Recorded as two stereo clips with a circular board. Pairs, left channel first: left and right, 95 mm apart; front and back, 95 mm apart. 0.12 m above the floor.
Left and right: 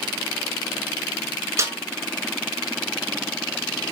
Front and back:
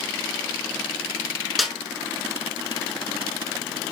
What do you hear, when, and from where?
1.6 s a snare drum: 95° right, 0.7 m